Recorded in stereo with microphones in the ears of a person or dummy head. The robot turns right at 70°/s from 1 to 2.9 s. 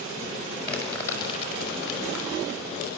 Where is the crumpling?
15° left (ahead or behind), 7 m; by 2.9 s 35° left (ahead or behind), 7 m.